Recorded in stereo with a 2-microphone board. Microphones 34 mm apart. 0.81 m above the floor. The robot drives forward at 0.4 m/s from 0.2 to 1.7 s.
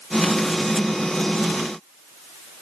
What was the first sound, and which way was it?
Only background noise.